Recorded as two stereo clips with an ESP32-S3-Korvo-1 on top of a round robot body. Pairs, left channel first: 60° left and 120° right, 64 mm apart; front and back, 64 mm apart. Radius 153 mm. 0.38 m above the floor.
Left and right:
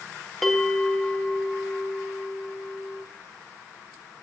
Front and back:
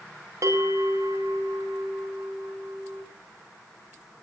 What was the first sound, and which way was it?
A bell, 150° left.